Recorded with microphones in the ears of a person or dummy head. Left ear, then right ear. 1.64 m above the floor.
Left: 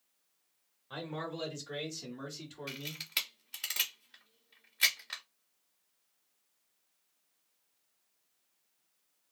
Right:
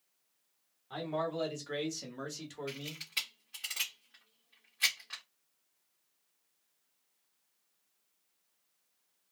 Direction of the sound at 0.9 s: Centre (ahead or behind).